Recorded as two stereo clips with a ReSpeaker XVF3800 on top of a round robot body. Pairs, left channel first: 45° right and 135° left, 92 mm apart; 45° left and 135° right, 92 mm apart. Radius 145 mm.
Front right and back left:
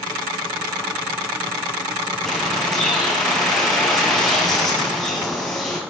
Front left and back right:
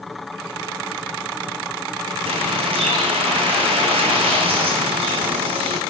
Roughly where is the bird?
Behind right.